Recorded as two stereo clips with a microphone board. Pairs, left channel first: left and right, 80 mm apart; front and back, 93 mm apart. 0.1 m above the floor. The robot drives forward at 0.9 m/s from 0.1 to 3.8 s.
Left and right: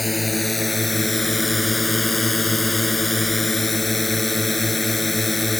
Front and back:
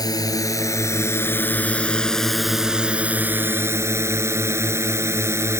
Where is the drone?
Straight ahead; by 5.6 s straight behind.